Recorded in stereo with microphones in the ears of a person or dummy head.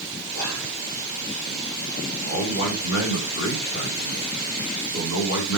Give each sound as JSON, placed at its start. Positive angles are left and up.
{"t": 0.3, "sound": "whispering", "side_deg": 90, "distance_m": 4.5}
{"t": 2.2, "sound": "a man speaking", "side_deg": 65, "distance_m": 4.5}